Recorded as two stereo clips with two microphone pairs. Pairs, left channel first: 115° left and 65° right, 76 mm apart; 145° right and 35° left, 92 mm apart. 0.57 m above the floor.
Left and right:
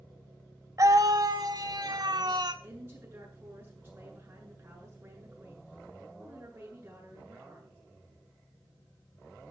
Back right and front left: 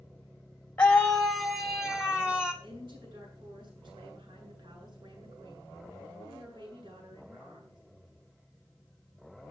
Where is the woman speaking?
Straight ahead, 8 m.